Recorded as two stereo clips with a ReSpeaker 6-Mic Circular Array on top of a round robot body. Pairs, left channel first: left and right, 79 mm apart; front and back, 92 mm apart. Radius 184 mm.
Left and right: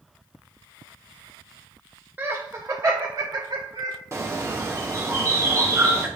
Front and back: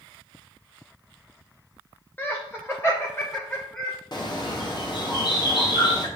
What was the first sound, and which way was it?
Laughter, 50° right.